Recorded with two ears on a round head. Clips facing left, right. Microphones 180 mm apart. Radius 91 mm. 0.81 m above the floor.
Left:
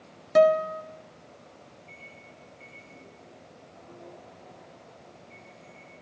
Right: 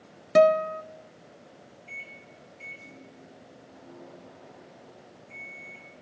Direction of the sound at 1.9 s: 80° right.